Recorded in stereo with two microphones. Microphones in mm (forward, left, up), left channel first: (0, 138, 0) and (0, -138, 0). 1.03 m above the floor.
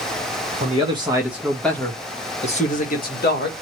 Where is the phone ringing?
I don't hear a phone ringing.